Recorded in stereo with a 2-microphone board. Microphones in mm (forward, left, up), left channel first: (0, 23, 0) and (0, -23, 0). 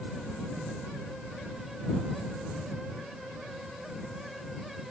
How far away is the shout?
I don't hear a shout.